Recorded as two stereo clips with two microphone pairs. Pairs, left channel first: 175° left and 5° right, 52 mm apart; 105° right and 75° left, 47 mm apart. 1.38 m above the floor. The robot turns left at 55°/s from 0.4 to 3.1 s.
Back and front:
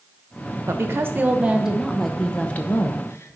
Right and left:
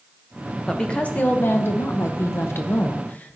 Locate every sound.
0.7 s a woman speaking: 25° right, 1.0 m; by 3.4 s 160° right, 1.0 m